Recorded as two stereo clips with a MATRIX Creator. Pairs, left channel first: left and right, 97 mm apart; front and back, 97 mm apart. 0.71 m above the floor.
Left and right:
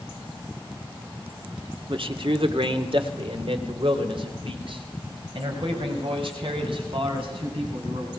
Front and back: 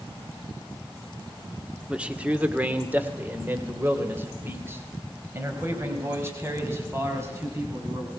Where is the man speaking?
100° right, 1.6 m; by 8.1 s 115° right, 6 m.